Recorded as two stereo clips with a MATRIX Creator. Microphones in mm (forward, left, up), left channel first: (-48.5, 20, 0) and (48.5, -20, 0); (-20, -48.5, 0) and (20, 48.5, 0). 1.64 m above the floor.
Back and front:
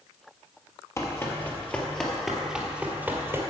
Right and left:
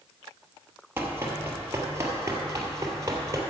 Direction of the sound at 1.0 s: 120° left.